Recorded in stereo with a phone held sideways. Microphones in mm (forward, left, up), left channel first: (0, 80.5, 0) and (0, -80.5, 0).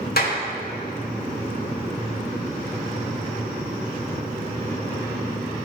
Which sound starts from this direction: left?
A clap, at 0.2 s.